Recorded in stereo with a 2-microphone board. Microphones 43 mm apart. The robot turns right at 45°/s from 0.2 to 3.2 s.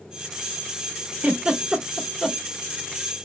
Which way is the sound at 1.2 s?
40° right (ahead or behind).